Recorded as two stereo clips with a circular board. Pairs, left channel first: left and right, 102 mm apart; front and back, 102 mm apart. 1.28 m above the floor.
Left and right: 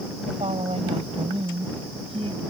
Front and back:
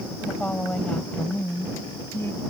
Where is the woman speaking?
80° right; by 2.4 s 70° right.